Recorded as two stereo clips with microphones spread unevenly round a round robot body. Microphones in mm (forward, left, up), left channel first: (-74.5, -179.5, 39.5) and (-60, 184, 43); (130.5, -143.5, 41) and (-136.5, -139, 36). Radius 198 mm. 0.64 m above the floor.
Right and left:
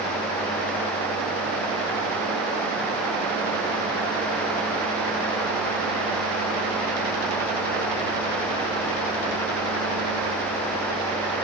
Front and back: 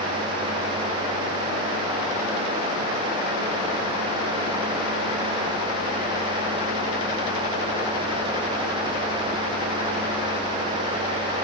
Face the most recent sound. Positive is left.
No sound to turn to.